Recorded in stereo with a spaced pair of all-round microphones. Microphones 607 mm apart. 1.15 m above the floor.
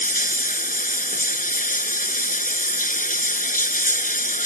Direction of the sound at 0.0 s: 15° left (ahead or behind).